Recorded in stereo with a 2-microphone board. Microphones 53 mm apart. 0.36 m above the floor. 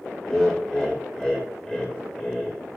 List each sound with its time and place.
0.2 s laughter: 10° left (ahead or behind), 0.9 m